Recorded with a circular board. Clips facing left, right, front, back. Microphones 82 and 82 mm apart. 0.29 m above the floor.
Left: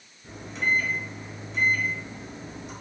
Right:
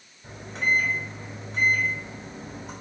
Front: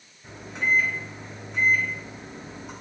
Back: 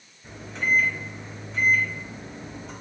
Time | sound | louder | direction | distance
0.2 | a microwave | right 1 dB, even | 75° right | 1.4 m